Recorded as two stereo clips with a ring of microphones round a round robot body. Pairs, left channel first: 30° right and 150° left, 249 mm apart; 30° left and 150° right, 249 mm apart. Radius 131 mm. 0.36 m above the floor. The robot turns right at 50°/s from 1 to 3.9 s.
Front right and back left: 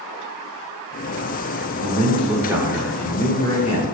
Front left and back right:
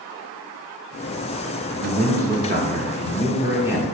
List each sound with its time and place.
1.8 s a man speaking: 175° right, 1.2 m; by 4.0 s 65° right, 1.2 m